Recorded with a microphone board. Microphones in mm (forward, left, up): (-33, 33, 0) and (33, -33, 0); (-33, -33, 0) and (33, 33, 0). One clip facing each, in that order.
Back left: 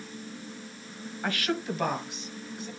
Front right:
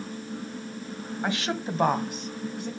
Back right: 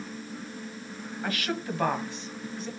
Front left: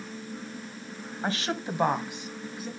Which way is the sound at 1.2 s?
15° left.